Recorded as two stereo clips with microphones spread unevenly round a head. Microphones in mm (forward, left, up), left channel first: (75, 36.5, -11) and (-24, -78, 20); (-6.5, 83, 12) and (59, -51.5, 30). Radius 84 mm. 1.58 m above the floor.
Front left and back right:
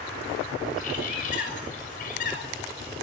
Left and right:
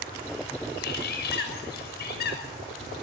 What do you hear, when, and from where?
0.8 s a bird: 100° left, 6 m